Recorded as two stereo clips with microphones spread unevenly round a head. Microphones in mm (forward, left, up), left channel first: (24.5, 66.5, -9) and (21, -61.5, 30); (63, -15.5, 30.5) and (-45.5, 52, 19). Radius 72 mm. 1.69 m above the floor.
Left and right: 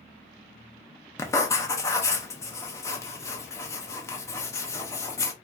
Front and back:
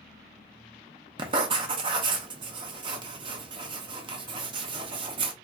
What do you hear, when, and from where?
1.2 s writing: 175° left, 0.5 m